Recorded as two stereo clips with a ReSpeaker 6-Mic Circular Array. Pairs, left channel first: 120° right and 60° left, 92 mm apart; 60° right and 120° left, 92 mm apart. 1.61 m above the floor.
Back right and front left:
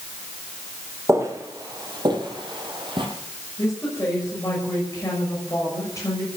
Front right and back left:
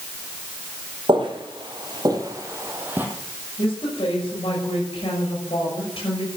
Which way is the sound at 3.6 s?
65° right.